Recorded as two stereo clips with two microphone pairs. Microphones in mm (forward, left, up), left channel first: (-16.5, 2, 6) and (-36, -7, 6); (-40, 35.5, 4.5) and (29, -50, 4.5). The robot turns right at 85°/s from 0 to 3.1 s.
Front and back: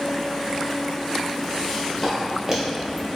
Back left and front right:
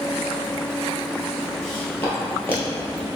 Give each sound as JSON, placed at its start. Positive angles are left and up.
{"t": 1.6, "sound": "footsteps", "azimuth_deg": 40, "distance_m": 1.6}